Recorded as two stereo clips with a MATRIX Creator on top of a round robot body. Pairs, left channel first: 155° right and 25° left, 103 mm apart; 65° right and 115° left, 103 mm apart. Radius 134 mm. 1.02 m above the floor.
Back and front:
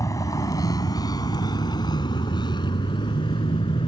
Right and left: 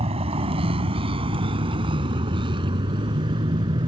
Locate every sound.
0.0 s a vehicle: 140° left; by 3.9 s 160° left